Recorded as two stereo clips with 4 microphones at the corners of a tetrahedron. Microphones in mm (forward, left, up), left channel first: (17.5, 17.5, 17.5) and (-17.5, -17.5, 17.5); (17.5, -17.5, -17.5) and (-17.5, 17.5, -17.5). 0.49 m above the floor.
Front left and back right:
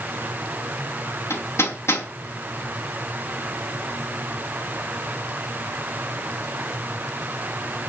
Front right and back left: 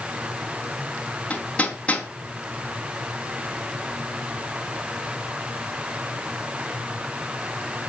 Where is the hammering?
20° left, 4.5 m.